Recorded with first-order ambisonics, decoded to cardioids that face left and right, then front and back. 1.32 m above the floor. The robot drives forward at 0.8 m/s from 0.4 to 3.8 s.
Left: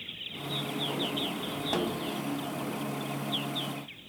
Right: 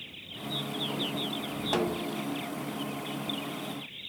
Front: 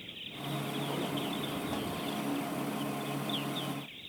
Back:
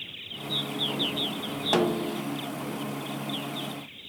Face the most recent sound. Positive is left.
turn(degrees=180)